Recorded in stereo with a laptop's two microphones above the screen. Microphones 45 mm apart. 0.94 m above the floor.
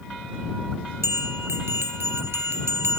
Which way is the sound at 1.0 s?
70° right (ahead or behind).